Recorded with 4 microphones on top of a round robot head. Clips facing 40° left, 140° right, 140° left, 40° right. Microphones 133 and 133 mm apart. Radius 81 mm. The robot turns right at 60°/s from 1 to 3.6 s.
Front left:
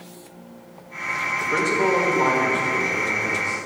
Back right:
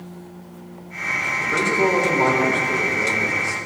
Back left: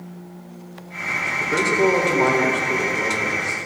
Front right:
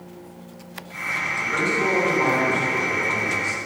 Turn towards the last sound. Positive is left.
turn(degrees=-110)